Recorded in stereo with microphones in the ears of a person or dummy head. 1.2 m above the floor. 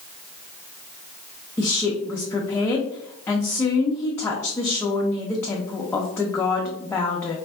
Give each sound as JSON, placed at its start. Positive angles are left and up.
{"t": 1.6, "sound": "a woman speaking", "side_deg": 5, "distance_m": 0.5}